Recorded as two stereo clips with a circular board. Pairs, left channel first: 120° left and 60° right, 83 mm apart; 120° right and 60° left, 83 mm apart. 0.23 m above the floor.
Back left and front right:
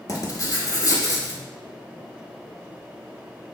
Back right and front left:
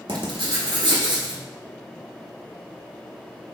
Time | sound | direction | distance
0.1 | writing | 75° left | 0.6 m